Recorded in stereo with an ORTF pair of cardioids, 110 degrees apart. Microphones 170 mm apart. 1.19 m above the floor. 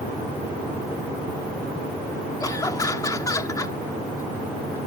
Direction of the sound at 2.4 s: 20° left.